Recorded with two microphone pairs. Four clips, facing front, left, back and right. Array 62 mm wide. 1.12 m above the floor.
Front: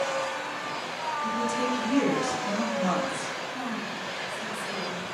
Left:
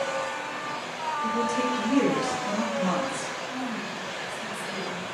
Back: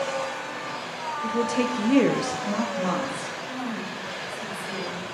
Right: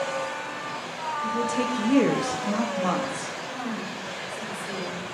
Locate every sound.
1.2 s a woman speaking: 155° left, 0.8 m; by 3.4 s 90° right, 1.5 m
3.5 s a woman speaking: 105° right, 1.6 m